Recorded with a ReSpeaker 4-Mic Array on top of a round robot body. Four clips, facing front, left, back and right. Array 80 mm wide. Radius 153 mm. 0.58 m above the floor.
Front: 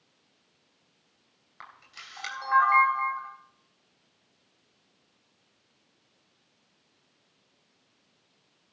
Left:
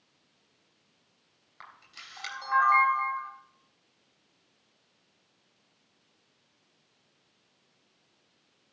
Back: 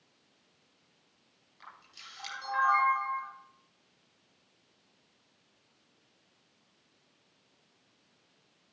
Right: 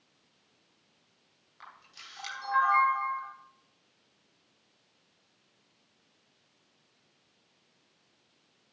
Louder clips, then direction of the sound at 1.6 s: Left 1 dB, front 4 dB; 15° left.